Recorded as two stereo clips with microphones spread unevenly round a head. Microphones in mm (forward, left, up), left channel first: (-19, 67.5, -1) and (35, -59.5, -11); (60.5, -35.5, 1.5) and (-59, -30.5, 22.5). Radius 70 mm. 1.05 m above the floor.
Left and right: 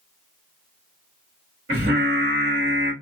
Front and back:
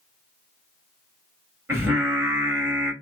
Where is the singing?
115° right, 2 m.